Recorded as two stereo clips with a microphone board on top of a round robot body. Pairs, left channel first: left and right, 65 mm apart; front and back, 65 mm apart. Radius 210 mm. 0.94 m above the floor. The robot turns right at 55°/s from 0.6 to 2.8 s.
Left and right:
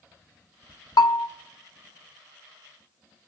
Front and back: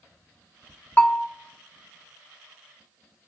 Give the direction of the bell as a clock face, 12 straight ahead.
10 o'clock.